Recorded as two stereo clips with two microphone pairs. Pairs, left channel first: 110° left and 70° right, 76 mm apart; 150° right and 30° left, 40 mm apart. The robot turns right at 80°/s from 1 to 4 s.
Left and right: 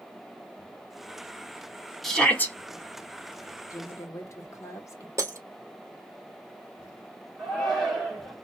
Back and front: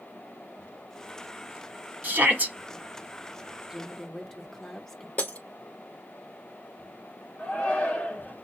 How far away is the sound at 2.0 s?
About 1.4 m.